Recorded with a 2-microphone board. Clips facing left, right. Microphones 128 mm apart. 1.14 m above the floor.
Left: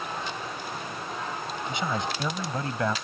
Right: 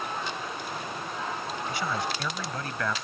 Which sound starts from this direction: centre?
A man speaking, at 1.7 s.